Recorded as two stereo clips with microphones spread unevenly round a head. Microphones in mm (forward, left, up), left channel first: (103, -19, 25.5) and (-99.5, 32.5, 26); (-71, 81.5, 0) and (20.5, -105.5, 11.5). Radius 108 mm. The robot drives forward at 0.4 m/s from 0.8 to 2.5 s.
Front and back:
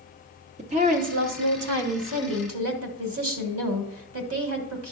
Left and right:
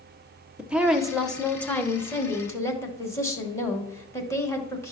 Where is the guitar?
No guitar in this recording.